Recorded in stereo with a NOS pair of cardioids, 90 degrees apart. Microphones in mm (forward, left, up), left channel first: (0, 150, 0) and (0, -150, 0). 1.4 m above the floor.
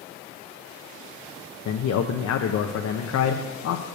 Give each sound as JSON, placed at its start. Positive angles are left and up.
{"t": 1.6, "sound": "a man speaking", "azimuth_deg": 65, "distance_m": 1.0}